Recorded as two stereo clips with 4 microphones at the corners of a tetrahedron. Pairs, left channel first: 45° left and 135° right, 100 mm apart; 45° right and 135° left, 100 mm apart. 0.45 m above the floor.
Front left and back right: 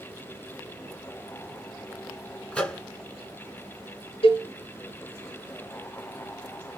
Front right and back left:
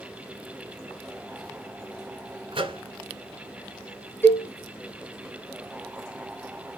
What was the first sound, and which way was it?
A microwave, 125° left.